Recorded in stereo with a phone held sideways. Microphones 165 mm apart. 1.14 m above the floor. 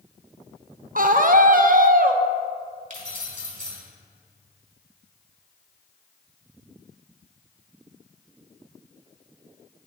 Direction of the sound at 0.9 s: 55° right (ahead or behind).